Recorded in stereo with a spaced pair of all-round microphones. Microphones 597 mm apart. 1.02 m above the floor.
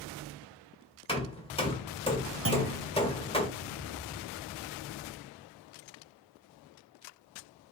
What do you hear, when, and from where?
1.1 s hammering: 10° left (ahead or behind), 1.1 m
2.5 s a clunk: 25° right (ahead or behind), 0.8 m